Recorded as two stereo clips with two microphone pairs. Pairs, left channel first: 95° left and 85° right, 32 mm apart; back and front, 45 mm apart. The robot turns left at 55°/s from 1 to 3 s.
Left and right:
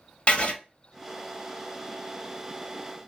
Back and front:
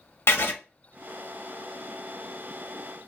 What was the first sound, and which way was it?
Writing, 150° left.